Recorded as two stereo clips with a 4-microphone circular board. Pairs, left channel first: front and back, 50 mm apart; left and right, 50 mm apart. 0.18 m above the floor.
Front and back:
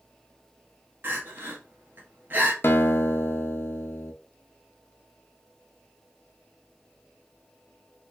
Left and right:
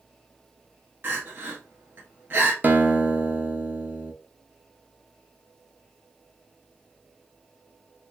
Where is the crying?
135° right, 1.2 m.